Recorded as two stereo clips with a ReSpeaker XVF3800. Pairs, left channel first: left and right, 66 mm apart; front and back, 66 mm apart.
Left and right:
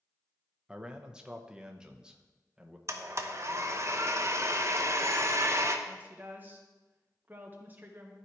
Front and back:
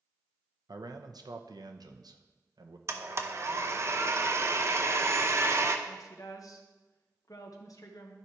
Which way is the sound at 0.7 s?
165° right.